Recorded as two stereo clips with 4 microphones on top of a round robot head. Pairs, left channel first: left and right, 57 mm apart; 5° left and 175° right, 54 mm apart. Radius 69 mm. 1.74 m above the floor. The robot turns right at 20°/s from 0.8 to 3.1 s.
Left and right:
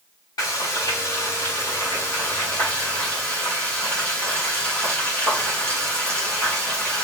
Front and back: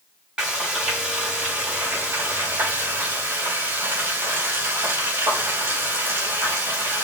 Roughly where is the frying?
Behind left.